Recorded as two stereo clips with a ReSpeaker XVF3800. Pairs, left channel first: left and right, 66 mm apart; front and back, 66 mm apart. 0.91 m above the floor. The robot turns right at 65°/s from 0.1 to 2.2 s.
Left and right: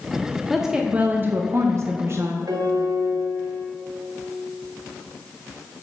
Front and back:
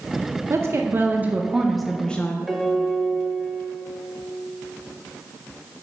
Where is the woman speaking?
175° right, 0.5 m; by 2.4 s 65° right, 0.5 m.